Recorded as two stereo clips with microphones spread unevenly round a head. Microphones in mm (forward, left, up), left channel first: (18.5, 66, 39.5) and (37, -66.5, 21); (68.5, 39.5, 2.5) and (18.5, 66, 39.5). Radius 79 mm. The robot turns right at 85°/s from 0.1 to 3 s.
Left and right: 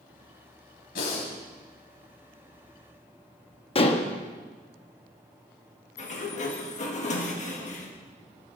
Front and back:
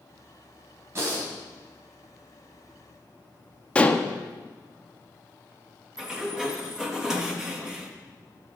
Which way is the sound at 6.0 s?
65° left.